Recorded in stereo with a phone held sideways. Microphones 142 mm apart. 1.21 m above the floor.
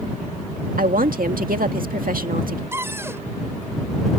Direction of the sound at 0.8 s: 80° right.